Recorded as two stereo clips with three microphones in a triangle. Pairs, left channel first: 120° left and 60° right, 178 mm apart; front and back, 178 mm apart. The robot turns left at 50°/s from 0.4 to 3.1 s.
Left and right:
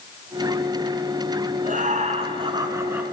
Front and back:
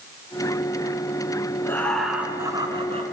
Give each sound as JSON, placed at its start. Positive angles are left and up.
{"t": 1.6, "sound": "laughter", "azimuth_deg": -70, "distance_m": 2.5}